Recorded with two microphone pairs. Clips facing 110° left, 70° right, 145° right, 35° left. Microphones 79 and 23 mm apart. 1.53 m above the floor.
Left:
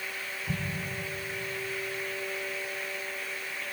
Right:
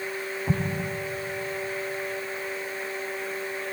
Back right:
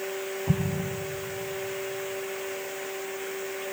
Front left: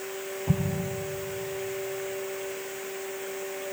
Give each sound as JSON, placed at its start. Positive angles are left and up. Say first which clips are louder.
{"t": 0.5, "sound": "an explosion", "louder": "right 7 dB, front left 1 dB", "azimuth_deg": -60, "distance_m": 0.8}